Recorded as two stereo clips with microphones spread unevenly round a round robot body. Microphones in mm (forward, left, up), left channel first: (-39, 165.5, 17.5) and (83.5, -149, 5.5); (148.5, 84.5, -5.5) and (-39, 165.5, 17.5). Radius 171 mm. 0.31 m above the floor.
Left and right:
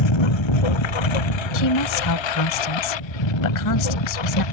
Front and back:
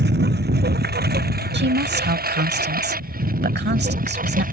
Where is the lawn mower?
120° left; by 4.5 s 110° left.